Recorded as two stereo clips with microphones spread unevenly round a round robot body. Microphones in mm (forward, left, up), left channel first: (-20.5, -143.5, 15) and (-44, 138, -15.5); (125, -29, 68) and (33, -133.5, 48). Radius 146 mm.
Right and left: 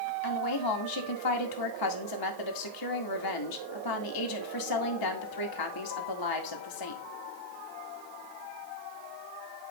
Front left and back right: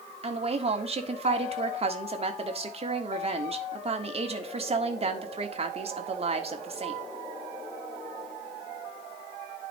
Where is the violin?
No violin in this recording.